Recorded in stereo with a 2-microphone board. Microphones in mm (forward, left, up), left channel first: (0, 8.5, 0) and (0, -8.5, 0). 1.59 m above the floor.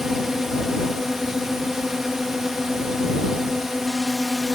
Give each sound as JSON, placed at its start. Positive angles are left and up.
{"t": 0.0, "sound": "a drone", "side_deg": -30}